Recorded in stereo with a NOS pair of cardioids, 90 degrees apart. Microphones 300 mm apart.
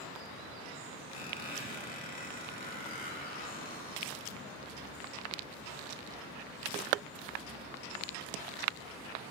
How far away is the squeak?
About 2.0 m.